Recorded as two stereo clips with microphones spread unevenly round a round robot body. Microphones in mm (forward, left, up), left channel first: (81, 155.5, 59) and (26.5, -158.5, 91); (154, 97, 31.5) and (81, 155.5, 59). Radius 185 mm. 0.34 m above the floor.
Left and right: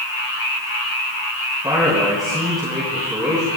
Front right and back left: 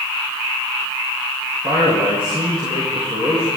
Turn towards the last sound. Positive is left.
turn(degrees=180)